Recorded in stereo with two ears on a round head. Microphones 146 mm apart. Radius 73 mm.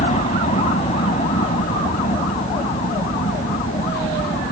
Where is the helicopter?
40° left (ahead or behind).